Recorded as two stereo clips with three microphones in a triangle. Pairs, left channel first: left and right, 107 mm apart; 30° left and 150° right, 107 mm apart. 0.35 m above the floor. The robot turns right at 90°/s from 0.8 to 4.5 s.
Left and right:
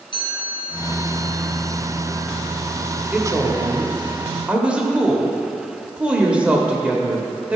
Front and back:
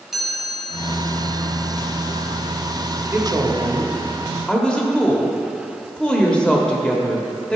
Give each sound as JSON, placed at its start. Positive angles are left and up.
{"t": 0.1, "sound": "a chime", "azimuth_deg": 125, "distance_m": 2.0}
{"t": 3.1, "sound": "a woman speaking", "azimuth_deg": -160, "distance_m": 0.9}